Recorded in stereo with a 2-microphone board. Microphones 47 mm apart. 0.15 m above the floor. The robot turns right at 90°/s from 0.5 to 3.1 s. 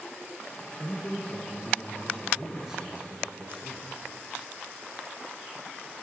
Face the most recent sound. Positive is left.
turn(degrees=-130)